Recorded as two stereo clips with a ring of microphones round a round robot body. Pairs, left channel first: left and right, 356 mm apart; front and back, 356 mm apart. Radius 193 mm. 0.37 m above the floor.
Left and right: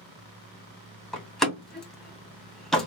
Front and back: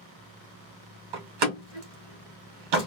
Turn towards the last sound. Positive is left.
turn(degrees=180)